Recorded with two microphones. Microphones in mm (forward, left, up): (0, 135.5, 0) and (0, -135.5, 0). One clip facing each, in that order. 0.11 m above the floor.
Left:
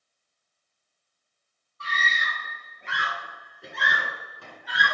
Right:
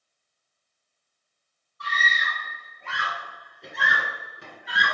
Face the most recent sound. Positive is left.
turn(degrees=-30)  # may be behind; listen again after turning